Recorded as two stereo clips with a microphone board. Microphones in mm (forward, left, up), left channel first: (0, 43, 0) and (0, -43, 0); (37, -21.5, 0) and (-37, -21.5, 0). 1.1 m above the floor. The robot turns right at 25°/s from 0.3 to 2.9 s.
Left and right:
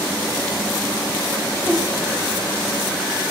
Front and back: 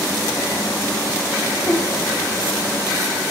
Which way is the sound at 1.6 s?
30° right.